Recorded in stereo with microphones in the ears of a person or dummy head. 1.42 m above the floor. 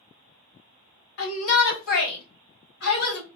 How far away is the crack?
No crack in this recording.